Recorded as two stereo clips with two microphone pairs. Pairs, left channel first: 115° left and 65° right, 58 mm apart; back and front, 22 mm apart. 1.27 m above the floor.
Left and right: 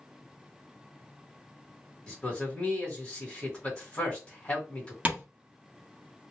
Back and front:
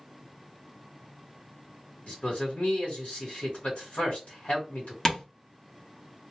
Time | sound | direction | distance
2.1 | a man speaking | 175° right | 1.3 m
5.0 | tapping | 115° right | 1.0 m